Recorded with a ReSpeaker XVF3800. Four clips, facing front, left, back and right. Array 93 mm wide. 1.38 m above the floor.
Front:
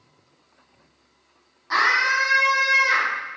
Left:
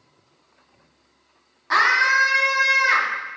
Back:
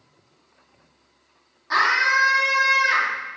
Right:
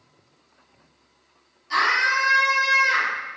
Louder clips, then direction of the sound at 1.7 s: Left 3 dB, back 1 dB; 85° left.